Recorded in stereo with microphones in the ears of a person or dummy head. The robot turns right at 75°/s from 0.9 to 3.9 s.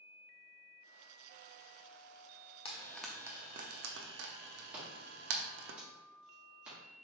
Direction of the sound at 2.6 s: 30° left (ahead or behind).